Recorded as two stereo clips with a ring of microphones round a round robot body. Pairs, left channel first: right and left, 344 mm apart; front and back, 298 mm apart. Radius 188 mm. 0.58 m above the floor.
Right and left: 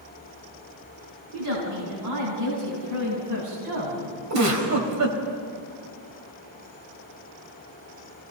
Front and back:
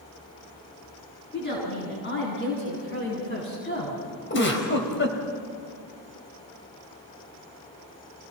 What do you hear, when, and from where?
1.3 s a woman speaking: 55° left, 7.5 m; by 4.0 s 50° left, 5.5 m
4.3 s a giggle: 50° left, 3.5 m